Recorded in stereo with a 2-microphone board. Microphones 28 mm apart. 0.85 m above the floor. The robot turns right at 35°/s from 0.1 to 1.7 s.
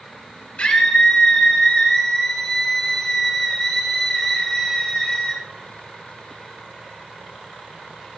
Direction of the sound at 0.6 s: 135° left.